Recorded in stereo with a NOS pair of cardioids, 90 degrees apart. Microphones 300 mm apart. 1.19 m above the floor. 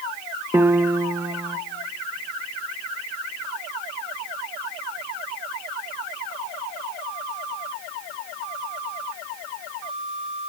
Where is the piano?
5° right, 0.7 m.